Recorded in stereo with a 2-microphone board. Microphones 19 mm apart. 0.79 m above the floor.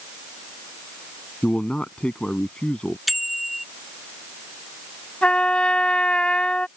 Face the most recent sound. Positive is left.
turn(degrees=65)  # may be behind; listen again after turning